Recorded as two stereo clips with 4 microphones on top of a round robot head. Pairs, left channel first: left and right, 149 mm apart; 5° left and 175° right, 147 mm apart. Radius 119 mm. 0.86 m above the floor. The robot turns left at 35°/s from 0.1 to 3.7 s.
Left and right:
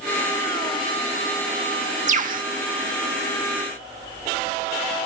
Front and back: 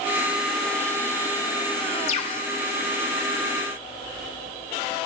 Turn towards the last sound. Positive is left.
turn(degrees=-105)